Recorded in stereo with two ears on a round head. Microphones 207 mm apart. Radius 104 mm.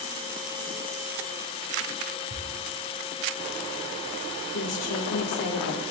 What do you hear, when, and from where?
2.3 s ticking: 80° right, 6 m
4.5 s a woman speaking: 80° left, 3.5 m